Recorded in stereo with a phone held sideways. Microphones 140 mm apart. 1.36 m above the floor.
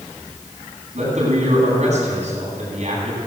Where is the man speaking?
55° right (ahead or behind), 9.5 m.